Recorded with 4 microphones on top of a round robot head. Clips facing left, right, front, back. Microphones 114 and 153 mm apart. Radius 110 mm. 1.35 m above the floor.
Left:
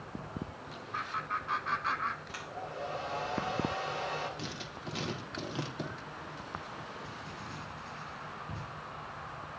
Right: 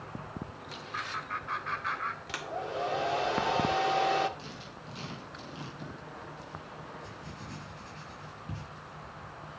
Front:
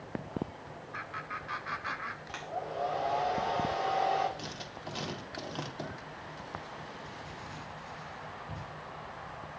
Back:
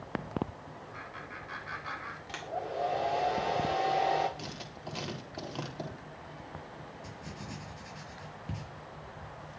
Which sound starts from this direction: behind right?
Writing, at 7.0 s.